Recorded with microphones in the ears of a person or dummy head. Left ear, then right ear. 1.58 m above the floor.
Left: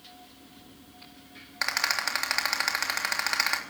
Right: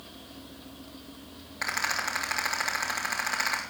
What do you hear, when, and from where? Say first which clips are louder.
1.6 s a rattle: left 2 dB; 40° left (ahead or behind), 3.5 m